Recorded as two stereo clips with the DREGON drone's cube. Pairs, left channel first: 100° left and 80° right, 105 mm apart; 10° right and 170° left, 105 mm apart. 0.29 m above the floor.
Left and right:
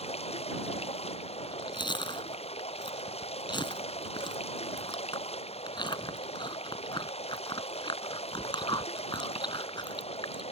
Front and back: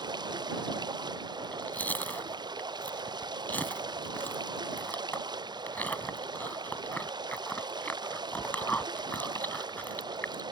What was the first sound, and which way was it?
Running water, 120° left.